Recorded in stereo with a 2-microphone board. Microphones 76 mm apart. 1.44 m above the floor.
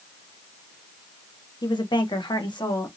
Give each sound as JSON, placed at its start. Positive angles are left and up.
{"t": 1.6, "sound": "a woman speaking", "side_deg": 70, "distance_m": 1.2}